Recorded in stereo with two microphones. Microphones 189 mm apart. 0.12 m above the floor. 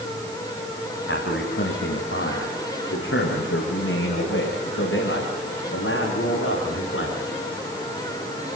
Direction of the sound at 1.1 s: 75° left (ahead or behind).